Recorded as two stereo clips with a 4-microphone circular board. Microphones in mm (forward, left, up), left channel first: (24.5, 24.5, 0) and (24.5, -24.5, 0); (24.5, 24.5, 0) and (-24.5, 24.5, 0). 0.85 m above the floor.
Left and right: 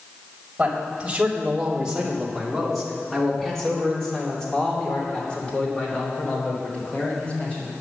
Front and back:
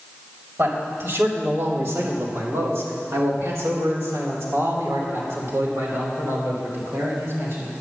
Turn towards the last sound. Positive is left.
turn(degrees=150)